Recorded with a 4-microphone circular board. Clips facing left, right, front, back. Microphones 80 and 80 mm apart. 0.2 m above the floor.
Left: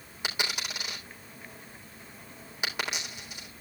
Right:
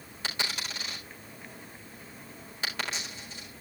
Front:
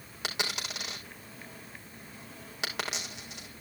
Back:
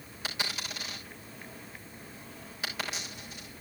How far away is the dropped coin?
About 4 m.